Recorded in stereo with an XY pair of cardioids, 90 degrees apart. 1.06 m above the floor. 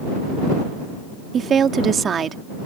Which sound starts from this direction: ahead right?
A woman speaking, at 1.3 s.